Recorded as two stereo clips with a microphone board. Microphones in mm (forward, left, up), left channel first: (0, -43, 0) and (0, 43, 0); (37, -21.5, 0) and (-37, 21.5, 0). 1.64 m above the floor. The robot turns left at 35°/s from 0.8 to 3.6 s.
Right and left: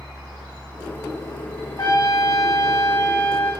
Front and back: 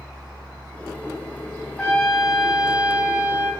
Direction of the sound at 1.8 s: 100° right.